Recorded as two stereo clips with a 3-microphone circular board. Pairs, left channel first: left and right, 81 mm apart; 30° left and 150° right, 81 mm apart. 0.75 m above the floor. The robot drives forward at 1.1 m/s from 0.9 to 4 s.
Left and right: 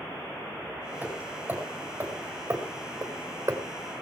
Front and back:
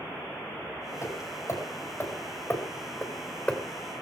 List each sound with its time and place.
1.0 s hammering: 20° right, 5 m; by 3.6 s 45° right, 2.5 m